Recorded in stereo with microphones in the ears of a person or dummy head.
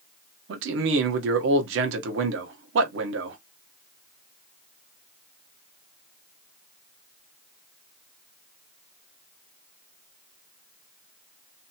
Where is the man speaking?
70° right (ahead or behind), 0.9 m.